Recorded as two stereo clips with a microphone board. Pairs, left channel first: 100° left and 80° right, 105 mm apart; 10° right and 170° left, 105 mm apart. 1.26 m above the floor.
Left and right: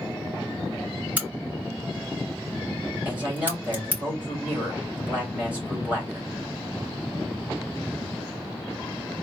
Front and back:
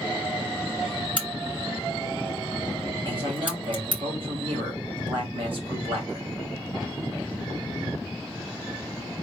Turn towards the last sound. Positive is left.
turn(degrees=-155)